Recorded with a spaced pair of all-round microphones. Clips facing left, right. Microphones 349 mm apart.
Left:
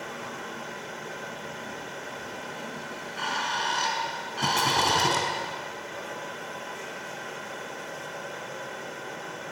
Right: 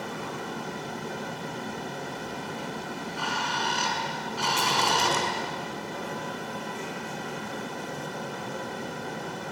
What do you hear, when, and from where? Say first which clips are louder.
0.0 s a fan: right 4 dB; 50° right (ahead or behind), 1.0 m
2.9 s a bird: right 3 dB; 25° left (ahead or behind), 4 m
4.4 s a rattle: left 2 dB; 55° left (ahead or behind), 4 m